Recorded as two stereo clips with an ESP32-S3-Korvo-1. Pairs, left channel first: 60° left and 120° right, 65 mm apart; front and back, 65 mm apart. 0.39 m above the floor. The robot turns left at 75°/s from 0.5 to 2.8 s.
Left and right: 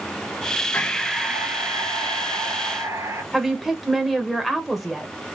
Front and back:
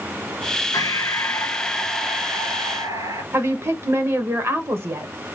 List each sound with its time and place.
0.7 s breathing: 5° right, 1.1 m; by 3.2 s 160° right, 1.1 m
3.3 s a woman speaking: 155° left, 1.1 m